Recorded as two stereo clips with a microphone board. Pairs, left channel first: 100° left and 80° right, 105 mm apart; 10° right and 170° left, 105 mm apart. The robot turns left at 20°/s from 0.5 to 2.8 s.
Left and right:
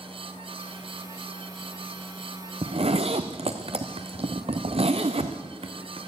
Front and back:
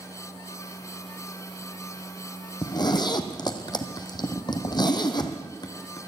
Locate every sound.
2.6 s a zipper: 55° right, 1.1 m; by 6.1 s 60° right, 1.1 m